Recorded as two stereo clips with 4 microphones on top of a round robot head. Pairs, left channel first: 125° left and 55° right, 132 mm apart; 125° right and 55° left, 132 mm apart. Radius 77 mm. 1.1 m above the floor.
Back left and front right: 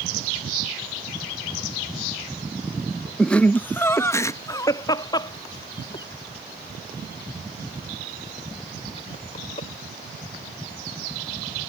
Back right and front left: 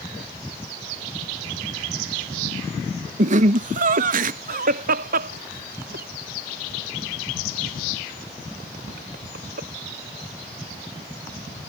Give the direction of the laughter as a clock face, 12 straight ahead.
11 o'clock.